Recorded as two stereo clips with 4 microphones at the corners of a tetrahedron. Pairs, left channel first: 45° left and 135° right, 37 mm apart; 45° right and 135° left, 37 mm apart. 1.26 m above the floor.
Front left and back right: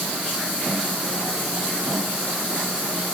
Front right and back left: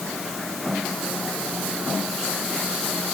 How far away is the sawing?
I don't hear sawing.